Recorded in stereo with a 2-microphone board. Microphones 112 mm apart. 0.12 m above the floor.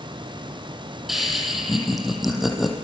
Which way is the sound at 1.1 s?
Centre (ahead or behind).